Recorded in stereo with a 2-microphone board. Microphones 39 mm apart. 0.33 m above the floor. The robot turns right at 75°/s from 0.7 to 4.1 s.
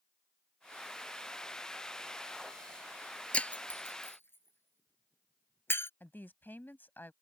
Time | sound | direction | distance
3.3 | breaking glass | 30° left (ahead or behind) | ?
6.0 | a woman speaking | 60° left (ahead or behind) | ?